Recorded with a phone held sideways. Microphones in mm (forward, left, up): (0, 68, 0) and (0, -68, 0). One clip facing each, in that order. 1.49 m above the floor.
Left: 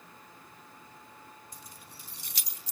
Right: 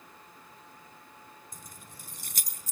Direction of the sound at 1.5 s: 50° right (ahead or behind).